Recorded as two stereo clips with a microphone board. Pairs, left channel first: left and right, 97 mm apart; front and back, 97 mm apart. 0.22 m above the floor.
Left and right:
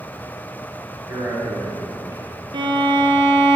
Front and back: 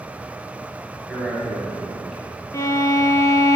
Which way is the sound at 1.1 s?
95° right.